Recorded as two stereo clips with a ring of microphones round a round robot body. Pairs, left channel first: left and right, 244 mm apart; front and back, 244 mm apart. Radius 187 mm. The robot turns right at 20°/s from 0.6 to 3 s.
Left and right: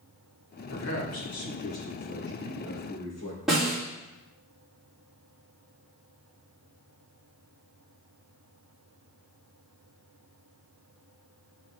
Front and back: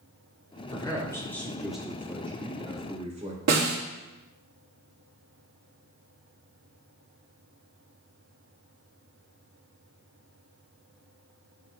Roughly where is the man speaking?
Left.